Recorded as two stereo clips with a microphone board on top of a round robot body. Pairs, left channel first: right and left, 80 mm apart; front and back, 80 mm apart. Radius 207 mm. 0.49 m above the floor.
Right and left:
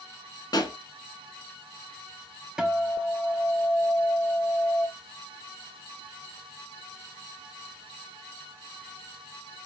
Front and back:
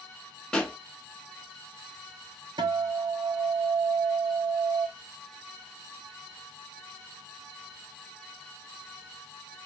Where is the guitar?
170° left, 1.9 m.